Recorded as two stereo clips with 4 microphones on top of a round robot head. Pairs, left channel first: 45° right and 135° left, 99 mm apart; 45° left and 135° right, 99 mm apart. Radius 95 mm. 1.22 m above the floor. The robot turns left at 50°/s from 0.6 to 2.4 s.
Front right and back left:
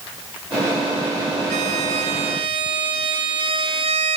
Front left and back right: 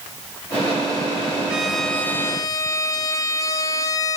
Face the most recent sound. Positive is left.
turn(degrees=100)